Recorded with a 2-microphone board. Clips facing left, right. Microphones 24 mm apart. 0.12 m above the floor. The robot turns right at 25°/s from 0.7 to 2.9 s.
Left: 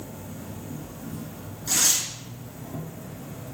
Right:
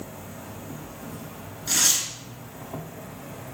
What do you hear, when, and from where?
0.0 s an insect: 120° right, 1.0 m; by 3.5 s 65° right, 1.0 m
1.7 s tearing paper: 20° right (ahead or behind), 0.9 m; by 2.1 s 15° right (ahead or behind), 0.9 m